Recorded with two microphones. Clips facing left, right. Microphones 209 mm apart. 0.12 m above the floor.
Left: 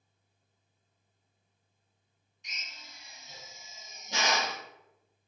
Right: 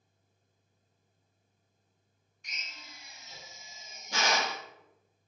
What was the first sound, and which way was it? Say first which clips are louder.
A drill: right 1 dB; 20° left (ahead or behind).